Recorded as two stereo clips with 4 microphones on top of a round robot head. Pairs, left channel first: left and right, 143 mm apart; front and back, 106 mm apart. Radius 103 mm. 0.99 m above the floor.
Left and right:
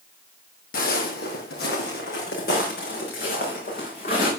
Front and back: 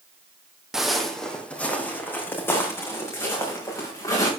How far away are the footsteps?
About 2 m.